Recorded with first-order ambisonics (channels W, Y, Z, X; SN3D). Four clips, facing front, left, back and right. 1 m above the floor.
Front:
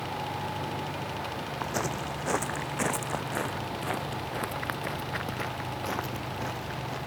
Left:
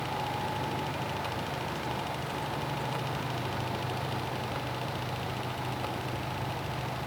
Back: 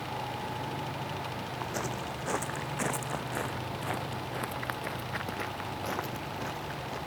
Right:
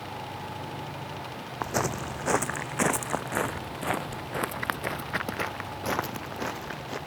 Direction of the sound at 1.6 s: 75° right.